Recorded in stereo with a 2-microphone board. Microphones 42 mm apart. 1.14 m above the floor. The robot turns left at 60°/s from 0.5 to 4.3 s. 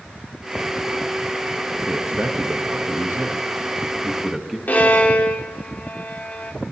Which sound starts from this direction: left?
A violin, at 4.7 s.